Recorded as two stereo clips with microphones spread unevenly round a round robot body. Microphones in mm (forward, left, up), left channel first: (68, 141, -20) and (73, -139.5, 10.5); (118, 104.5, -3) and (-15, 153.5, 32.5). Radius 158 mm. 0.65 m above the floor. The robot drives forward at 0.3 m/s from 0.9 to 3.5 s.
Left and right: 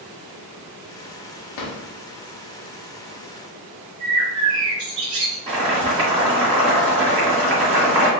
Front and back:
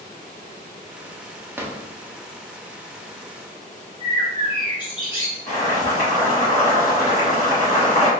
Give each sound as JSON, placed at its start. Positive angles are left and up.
{"t": 1.6, "sound": "a drawer", "azimuth_deg": 80, "distance_m": 0.7}
{"t": 4.0, "sound": "a bird", "azimuth_deg": -110, "distance_m": 0.8}
{"t": 5.5, "sound": "boiling", "azimuth_deg": -80, "distance_m": 1.4}